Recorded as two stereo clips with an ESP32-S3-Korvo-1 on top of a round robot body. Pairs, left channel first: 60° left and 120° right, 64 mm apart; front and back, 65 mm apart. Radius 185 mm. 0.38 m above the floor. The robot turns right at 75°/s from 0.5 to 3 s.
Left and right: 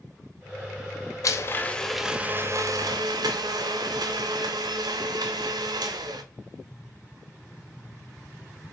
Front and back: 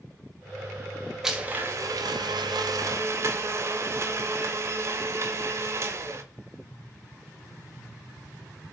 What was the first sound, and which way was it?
A blender, 95° left.